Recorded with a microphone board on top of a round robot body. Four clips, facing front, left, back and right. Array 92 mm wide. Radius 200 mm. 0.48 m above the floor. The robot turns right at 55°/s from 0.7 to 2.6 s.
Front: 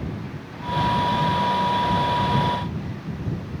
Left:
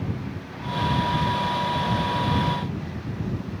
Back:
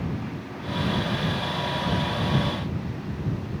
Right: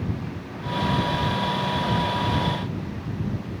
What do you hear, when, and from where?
Only background noise.